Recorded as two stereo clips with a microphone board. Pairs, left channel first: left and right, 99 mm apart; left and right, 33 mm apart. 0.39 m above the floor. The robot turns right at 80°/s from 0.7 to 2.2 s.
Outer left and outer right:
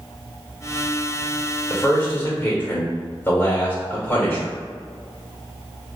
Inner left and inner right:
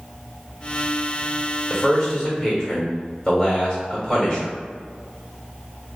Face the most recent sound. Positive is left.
turn(degrees=20)  # may be behind; listen again after turning